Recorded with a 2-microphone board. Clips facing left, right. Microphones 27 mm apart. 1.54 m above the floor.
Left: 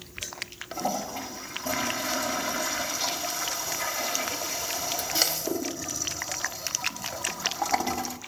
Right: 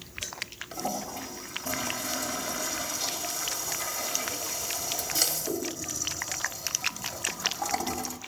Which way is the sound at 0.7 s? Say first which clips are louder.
Left 4 dB; 35° left (ahead or behind).